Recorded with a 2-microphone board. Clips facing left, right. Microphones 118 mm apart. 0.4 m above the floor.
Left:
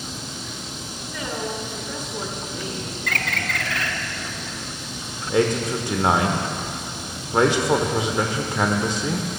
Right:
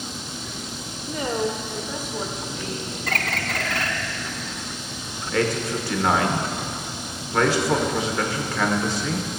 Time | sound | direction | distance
1.1 | a woman speaking | 40° right (ahead or behind) | 1.2 m
3.1 | a bird | 40° right (ahead or behind) | 0.7 m
5.3 | a man speaking | 20° left (ahead or behind) | 0.8 m